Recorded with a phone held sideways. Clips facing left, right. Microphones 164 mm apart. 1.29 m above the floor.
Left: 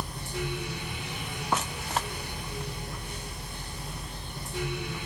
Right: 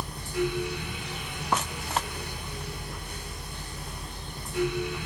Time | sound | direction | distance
0.0 | a fan | 25° left (ahead or behind) | 1.3 m